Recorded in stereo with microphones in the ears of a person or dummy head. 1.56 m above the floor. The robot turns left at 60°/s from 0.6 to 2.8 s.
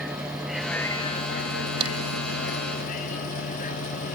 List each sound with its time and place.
0.0 s a vehicle: centre (ahead or behind); by 4.2 s 40° left (ahead or behind)
1.8 s a crack: 30° right (ahead or behind); by 1.9 s 40° right (ahead or behind)